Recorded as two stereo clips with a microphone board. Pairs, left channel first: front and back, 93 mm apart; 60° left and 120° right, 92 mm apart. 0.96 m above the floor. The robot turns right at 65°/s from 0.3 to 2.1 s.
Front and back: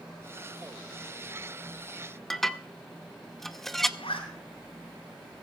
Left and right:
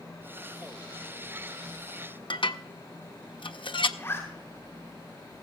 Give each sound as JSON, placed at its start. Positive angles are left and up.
{"t": 2.3, "sound": "dishes clattering", "azimuth_deg": 85, "distance_m": 0.7}
{"t": 4.0, "sound": "a zipper", "azimuth_deg": -5, "distance_m": 7.5}